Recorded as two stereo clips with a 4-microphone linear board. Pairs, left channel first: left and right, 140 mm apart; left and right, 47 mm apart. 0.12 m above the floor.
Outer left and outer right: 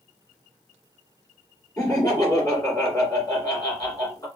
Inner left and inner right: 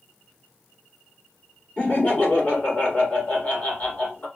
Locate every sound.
1.8 s laughter: 30° left (ahead or behind), 1.9 m